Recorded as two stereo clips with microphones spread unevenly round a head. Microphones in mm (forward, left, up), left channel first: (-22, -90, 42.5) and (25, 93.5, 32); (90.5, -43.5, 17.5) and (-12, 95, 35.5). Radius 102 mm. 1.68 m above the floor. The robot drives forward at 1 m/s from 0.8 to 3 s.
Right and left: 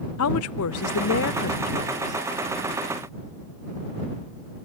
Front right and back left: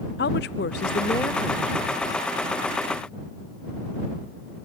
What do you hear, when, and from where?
0.2 s a woman speaking: 95° right, 0.5 m; by 2.2 s 160° right, 1.5 m